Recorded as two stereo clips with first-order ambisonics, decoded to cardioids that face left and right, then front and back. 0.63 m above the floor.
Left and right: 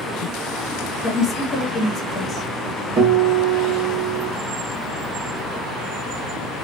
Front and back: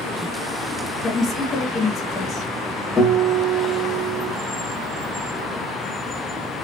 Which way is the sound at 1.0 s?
45° left.